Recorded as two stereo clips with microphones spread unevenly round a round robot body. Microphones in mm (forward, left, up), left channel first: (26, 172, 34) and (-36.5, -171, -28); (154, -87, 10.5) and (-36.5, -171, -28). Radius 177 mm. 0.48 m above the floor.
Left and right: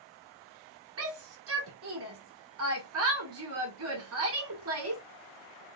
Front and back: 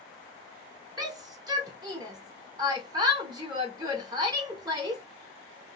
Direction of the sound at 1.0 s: 105° right.